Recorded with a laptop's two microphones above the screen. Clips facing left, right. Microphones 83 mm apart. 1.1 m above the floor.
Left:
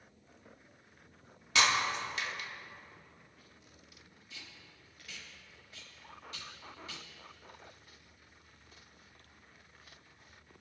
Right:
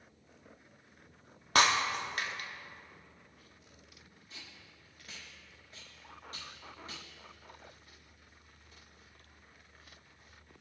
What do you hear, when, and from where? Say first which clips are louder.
1.6 s breaking glass: right 2 dB; 45° right (ahead or behind), 1.0 m
4.3 s tape being pulled: even; 40° right (ahead or behind), 1.7 m